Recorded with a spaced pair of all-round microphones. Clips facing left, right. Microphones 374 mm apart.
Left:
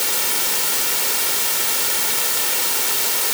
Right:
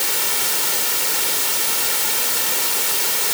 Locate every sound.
Only background noise.